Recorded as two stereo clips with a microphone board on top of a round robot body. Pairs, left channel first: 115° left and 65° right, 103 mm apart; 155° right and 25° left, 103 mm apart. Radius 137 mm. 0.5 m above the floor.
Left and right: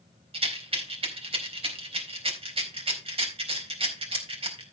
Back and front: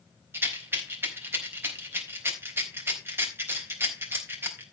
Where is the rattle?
45° right, 4 m.